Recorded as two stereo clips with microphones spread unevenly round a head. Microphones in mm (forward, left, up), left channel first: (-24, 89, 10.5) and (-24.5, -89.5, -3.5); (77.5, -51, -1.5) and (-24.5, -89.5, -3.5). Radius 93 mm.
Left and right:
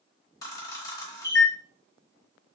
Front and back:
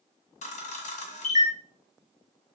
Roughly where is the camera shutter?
Ahead.